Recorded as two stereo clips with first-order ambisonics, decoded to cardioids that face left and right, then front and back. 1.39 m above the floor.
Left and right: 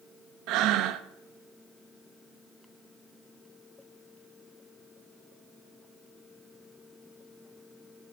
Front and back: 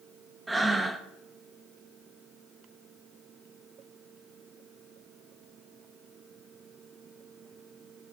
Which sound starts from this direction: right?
Breathing, at 0.5 s.